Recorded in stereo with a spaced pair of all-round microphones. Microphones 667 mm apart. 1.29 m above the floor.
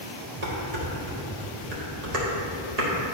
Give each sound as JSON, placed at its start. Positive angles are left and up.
{"t": 0.4, "sound": "dishes clattering", "side_deg": -70, "distance_m": 1.5}